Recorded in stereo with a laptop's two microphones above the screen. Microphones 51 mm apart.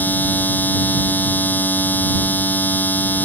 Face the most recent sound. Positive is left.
turn(degrees=35)  # may be behind; listen again after turning